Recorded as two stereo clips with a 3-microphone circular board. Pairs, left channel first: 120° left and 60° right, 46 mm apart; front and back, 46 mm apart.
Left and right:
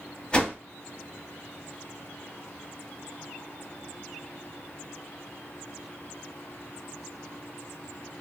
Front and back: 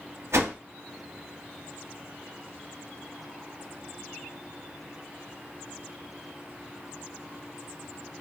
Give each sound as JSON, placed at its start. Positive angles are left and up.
{"t": 0.3, "sound": "a whoosh", "azimuth_deg": -170, "distance_m": 0.6}